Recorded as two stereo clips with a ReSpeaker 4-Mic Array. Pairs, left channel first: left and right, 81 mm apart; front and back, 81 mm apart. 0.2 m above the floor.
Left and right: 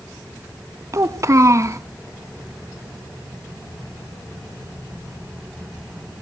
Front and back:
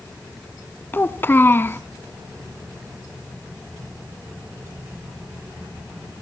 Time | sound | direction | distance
0.9 | a child speaking | 55° right | 0.9 m